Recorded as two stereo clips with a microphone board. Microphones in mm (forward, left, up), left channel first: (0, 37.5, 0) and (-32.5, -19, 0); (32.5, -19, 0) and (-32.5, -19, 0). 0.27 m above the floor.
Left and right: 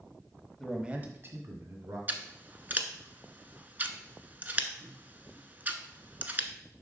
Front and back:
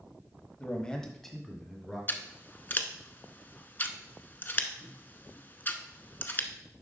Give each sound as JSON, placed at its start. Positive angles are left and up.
{"t": 0.6, "sound": "a man speaking", "azimuth_deg": -15, "distance_m": 1.0}
{"t": 2.1, "sound": "scissors", "azimuth_deg": -60, "distance_m": 0.6}